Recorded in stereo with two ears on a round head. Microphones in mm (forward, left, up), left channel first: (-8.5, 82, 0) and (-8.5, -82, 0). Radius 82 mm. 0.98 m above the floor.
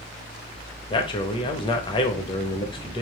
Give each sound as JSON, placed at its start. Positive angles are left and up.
{"t": 0.9, "sound": "a man speaking", "side_deg": 30, "distance_m": 0.6}